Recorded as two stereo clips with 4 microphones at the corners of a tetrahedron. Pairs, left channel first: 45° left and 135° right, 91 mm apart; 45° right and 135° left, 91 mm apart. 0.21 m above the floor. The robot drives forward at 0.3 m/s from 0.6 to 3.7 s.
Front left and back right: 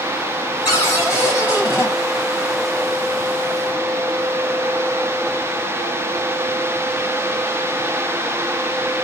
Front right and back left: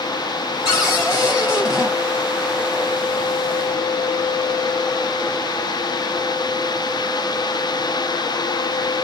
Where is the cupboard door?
5° right, 1.4 m.